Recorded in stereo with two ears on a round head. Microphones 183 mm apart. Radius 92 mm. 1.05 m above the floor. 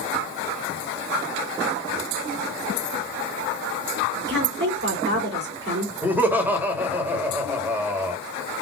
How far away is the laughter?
About 1.7 m.